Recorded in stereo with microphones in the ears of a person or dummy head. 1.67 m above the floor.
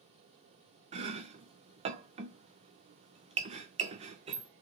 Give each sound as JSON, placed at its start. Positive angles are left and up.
{"t": 0.9, "sound": "chopping", "side_deg": -35, "distance_m": 0.6}